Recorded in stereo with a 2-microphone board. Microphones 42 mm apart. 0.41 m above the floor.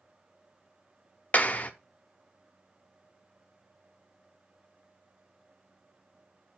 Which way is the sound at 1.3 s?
35° left (ahead or behind).